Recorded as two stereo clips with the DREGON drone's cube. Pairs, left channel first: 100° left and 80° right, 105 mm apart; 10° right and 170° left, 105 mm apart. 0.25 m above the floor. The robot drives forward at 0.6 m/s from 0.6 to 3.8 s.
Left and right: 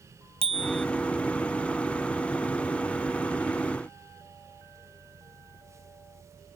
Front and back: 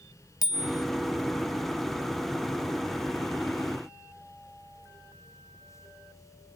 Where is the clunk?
No clunk in this recording.